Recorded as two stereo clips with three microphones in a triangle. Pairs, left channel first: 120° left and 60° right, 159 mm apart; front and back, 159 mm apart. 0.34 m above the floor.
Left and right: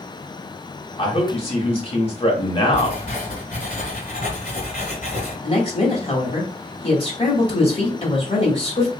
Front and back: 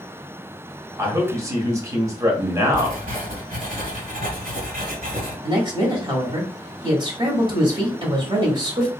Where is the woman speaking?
140° left, 1.9 m.